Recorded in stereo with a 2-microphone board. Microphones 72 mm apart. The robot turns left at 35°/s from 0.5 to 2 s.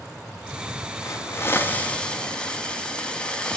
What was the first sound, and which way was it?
A hiss, 45° left.